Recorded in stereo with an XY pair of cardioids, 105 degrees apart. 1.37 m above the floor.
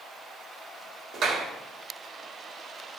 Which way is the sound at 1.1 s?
65° right.